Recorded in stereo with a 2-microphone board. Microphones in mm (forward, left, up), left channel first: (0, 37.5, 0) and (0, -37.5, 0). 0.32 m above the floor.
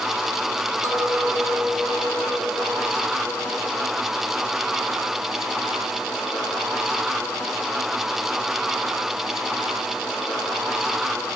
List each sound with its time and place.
0.8 s a clink: 40° right (ahead or behind), 1.8 m